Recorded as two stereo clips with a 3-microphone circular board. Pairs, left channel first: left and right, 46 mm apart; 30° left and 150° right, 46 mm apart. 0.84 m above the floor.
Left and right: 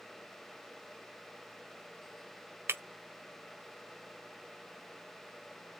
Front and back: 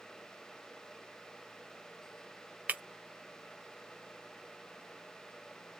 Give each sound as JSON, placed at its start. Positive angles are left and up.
{"t": 2.7, "sound": "breaking glass", "azimuth_deg": -100, "distance_m": 0.7}